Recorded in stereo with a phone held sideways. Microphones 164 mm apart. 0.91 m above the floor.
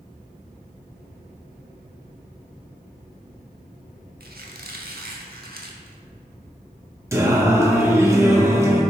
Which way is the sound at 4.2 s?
70° right (ahead or behind).